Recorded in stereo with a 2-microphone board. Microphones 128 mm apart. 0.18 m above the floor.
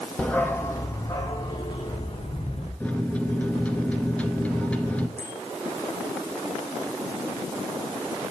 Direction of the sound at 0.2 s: 5° left (ahead or behind).